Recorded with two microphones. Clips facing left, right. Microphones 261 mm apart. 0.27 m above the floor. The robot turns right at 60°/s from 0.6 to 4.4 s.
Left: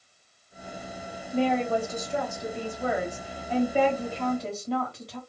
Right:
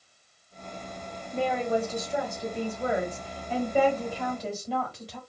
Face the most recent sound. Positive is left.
turn(degrees=-5)  # may be behind; listen again after turning